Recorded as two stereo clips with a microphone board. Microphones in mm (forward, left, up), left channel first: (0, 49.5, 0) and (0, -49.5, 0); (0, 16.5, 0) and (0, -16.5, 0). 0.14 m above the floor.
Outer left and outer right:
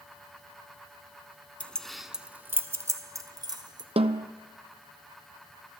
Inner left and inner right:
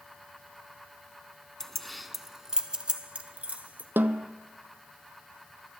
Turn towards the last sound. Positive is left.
turn(degrees=-80)